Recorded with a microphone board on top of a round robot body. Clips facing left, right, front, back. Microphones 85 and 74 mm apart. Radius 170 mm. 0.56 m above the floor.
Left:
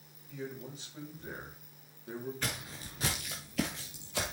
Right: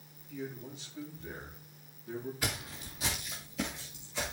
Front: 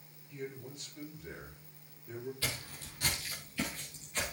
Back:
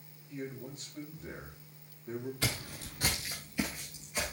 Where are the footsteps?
170° right, 0.6 m; by 4.3 s 100° left, 1.8 m.